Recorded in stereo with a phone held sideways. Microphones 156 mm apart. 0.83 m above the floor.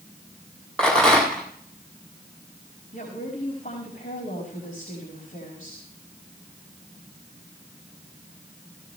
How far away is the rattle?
About 7 m.